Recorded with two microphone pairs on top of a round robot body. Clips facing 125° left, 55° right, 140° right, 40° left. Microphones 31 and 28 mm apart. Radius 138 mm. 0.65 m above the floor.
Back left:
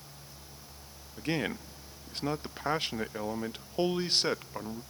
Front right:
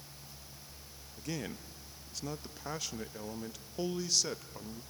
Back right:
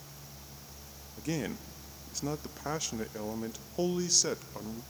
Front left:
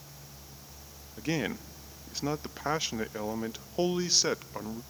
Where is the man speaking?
85° left, 0.7 m.